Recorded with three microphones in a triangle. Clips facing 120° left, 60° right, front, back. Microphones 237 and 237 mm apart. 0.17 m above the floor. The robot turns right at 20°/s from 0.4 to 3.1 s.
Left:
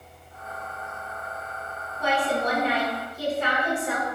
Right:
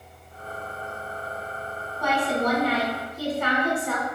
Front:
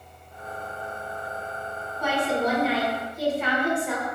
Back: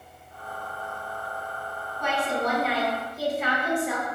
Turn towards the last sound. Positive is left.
turn(degrees=100)